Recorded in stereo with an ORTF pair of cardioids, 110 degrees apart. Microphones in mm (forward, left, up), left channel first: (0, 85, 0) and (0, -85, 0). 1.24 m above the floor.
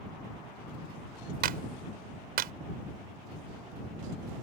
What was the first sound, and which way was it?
A clap, 65° right.